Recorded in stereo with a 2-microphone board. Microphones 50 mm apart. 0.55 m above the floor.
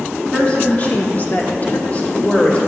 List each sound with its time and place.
0.2 s a woman speaking: 20° left (ahead or behind), 1.0 m; by 2.6 s 25° left (ahead or behind), 1.7 m